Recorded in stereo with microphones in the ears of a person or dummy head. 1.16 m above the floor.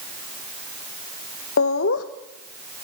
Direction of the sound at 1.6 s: 70° left (ahead or behind).